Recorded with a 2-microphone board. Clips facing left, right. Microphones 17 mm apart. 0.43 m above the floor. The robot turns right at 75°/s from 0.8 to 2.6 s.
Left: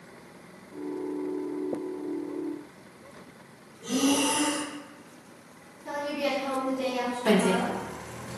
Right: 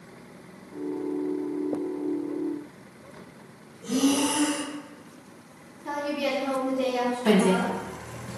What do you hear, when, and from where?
3.8 s breathing: 35° left (ahead or behind), 1.1 m
5.8 s a woman speaking: 25° right (ahead or behind), 0.8 m
7.2 s a woman speaking: 20° right (ahead or behind), 0.9 m